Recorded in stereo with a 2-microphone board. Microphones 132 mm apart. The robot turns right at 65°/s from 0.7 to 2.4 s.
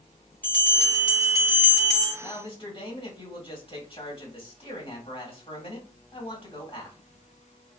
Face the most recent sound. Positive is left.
turn(degrees=45)  # may be behind; listen again after turning